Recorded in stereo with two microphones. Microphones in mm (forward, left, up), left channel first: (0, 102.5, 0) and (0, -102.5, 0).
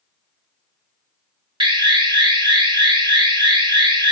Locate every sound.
1.6 s an alarm: 25° right (ahead or behind), 0.7 m